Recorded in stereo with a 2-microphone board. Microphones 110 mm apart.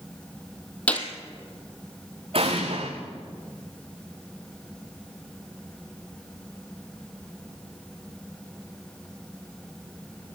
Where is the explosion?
60° right (ahead or behind), 5.5 m.